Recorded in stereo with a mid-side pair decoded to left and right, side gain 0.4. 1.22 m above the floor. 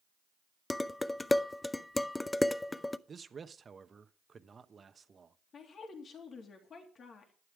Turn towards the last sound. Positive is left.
turn(degrees=55)